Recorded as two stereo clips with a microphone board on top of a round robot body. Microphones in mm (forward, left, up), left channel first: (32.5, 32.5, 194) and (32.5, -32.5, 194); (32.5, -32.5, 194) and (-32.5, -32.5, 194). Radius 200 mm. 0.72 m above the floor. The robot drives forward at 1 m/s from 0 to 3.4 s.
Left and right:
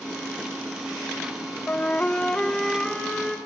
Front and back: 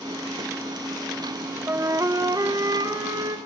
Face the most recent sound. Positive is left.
turn(degrees=175)